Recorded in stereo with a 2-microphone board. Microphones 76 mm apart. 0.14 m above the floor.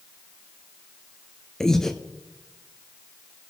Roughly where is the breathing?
Centre.